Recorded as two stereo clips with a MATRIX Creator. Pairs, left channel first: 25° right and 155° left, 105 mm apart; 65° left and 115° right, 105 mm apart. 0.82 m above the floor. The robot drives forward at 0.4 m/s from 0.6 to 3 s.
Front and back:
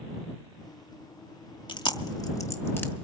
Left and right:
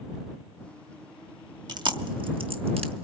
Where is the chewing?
65° right, 1.0 m; by 3.0 s 95° right, 0.9 m.